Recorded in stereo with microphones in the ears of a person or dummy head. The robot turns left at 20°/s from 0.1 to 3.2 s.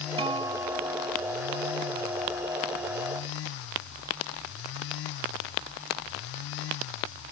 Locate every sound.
0.2 s a guitar: 25° right (ahead or behind); by 1.2 s 5° right (ahead or behind)